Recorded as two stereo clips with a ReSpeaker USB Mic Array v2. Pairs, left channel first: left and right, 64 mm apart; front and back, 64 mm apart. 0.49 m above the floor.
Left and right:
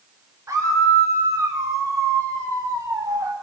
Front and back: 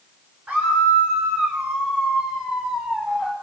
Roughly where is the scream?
Behind right.